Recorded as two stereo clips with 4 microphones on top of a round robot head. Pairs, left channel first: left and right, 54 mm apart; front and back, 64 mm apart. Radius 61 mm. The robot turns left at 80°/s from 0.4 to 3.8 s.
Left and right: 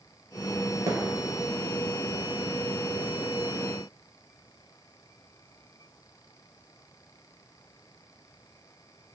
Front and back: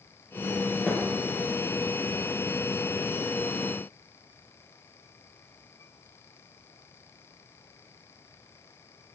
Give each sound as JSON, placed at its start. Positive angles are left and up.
{"t": 0.9, "sound": "a thud", "azimuth_deg": -95, "distance_m": 4.0}